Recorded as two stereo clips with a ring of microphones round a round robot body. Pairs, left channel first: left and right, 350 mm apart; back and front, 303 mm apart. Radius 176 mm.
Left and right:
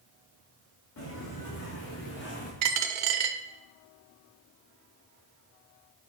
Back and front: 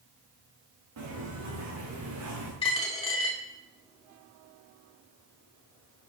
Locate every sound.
1.0 s footsteps: 35° left, 5.5 m; by 2.5 s 30° left, 5 m
2.6 s a dropped coin: 105° right, 1.1 m